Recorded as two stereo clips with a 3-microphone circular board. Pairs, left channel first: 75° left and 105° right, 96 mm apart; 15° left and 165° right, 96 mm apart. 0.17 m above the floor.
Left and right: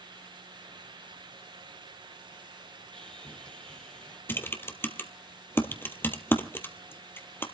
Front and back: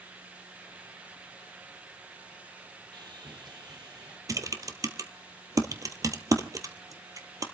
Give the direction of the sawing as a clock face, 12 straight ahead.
7 o'clock.